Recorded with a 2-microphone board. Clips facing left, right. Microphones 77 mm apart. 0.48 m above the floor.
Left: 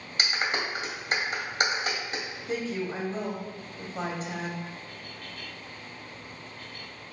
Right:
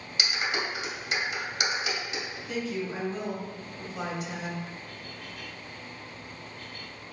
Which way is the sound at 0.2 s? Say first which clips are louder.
Left 1 dB; 45° left (ahead or behind).